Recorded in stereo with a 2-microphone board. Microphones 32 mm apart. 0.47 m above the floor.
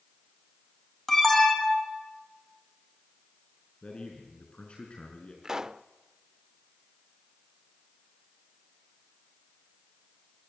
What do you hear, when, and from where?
1.1 s an alarm: 10° left (ahead or behind), 4 m
3.8 s a man speaking: 35° left (ahead or behind), 5 m
5.4 s a pop: 20° right (ahead or behind), 0.5 m